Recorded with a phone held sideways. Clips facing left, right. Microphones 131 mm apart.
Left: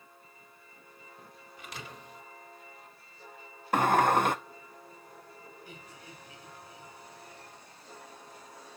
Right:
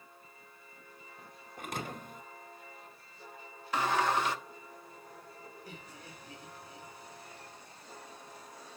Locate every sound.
1.6 s a thud: 50° right (ahead or behind), 1.1 m
3.7 s a sliding door: 55° left (ahead or behind), 0.9 m
5.7 s laughter: 40° right (ahead or behind), 5 m